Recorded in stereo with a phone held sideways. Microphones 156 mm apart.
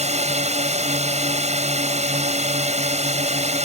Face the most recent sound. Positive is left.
turn(degrees=-45)  # may be behind; listen again after turning